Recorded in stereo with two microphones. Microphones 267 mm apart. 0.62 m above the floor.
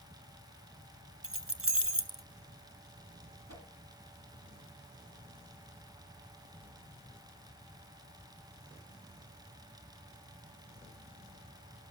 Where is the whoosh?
75° right (ahead or behind), 2.5 m.